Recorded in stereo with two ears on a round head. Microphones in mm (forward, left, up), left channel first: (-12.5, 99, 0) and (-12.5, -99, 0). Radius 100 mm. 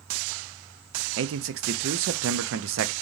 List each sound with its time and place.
1.2 s a man speaking: 60° right (ahead or behind), 0.6 m